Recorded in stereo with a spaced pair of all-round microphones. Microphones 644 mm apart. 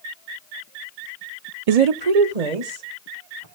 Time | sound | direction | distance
1.7 | a woman speaking | 60° right (ahead or behind) | 0.6 m